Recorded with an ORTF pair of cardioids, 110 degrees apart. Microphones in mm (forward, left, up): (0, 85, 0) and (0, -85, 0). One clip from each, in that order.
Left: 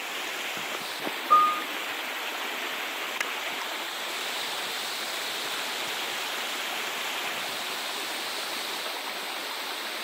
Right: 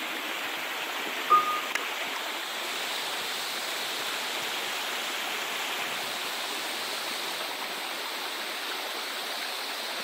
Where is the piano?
50° right, 2.5 m.